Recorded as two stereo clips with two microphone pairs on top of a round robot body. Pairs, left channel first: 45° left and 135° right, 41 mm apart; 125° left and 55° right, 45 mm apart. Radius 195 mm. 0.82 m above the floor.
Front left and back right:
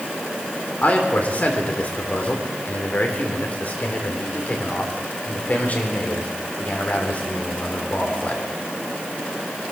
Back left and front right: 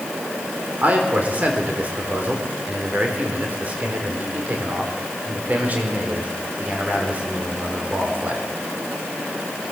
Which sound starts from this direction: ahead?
A man speaking, at 0.8 s.